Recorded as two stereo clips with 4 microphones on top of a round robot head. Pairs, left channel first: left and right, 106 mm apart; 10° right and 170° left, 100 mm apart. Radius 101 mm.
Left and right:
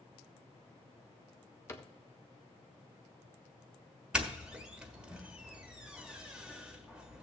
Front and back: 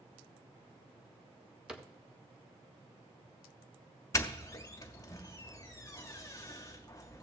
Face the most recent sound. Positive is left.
turn(degrees=-15)